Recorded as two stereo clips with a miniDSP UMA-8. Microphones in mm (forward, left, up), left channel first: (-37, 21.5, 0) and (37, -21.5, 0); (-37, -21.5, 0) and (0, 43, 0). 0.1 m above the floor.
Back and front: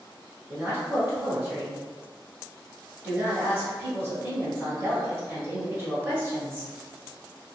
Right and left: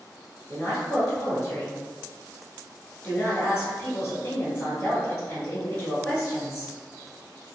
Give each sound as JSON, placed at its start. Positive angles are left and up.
{"t": 0.5, "sound": "a woman speaking", "azimuth_deg": -70, "distance_m": 1.1}